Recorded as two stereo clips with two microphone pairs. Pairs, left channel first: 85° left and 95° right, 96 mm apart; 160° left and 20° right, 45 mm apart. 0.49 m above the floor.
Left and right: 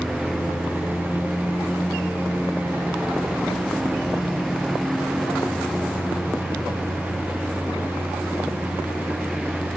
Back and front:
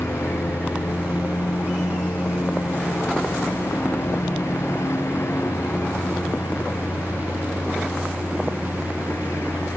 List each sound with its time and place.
0.0 s a lawn mower: 175° left